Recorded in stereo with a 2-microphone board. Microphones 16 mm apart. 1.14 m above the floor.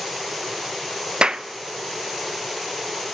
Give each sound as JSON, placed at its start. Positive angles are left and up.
{"t": 1.2, "sound": "a clap", "side_deg": -75, "distance_m": 0.7}